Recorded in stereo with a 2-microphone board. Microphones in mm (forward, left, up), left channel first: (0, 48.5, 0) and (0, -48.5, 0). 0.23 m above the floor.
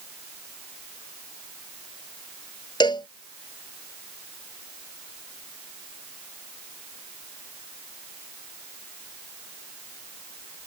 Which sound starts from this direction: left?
A cowbell, at 2.8 s.